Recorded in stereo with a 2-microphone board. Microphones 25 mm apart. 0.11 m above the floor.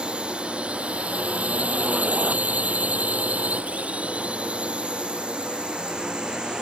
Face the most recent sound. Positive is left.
turn(degrees=-35)  # may be behind; listen again after turning